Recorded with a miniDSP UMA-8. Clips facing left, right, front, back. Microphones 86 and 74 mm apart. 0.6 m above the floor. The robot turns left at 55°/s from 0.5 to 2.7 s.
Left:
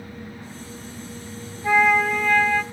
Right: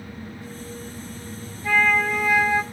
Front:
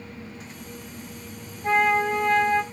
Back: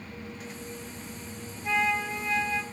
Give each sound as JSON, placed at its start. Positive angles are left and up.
{"t": 1.6, "sound": "a flute", "azimuth_deg": 25, "distance_m": 0.7}